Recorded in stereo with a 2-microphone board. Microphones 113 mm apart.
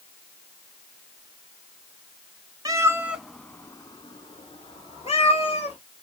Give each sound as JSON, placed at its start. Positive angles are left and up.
{"t": 2.6, "sound": "a cat meowing", "side_deg": -35, "distance_m": 0.6}